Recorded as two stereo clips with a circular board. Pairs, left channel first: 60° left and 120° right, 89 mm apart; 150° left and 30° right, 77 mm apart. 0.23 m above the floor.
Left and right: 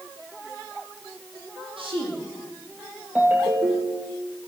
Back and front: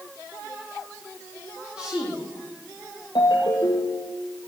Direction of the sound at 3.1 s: 165° left.